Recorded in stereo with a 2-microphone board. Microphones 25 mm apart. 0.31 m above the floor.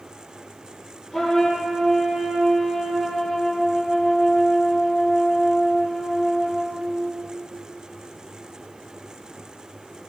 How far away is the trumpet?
About 7.5 m.